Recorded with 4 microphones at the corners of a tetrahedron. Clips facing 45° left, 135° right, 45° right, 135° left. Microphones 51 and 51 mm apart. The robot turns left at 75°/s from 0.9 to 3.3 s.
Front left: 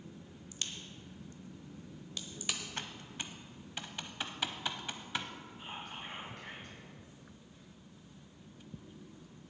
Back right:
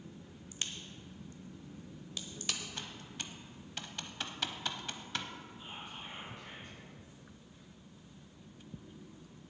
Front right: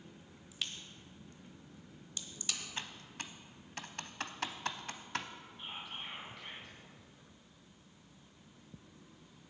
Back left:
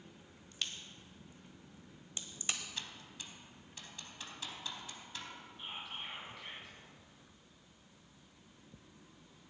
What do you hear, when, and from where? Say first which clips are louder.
0.5 s a crack: back right 1 dB, even; 125° right, 1.0 m; by 2.6 s 105° left, 1.0 m
2.8 s typing on a keyboard: front left 2 dB, front right 3 dB; 10° left, 0.7 m; by 5.3 s 35° right, 0.7 m
5.6 s whispering: front left 4 dB, even; 45° left, 3 m